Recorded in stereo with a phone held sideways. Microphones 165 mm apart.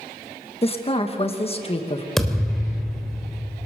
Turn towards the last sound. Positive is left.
turn(degrees=0)  # may be behind; listen again after turning